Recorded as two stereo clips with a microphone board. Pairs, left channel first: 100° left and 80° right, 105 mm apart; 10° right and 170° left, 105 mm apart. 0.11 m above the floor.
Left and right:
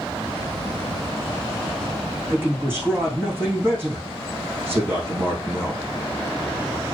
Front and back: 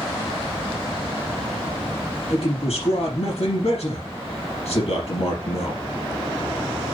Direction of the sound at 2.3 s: 10° right.